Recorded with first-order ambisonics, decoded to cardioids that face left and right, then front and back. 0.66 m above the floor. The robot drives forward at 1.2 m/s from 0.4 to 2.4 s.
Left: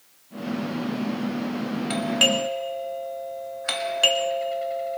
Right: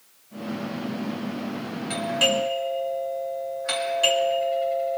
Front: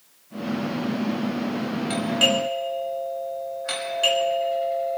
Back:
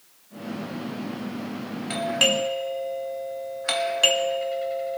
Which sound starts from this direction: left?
A doorbell, at 1.9 s.